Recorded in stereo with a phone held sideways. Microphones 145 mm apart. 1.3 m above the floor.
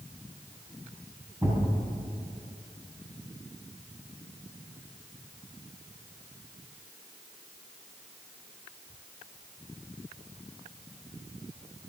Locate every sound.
1.4 s a thud: 20° right (ahead or behind), 5 m